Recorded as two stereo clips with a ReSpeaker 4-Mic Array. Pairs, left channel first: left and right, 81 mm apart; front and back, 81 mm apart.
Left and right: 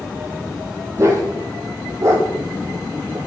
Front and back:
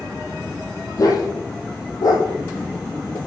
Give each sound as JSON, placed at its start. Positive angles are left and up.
{"t": 1.0, "sound": "a dog barking", "azimuth_deg": -35, "distance_m": 3.5}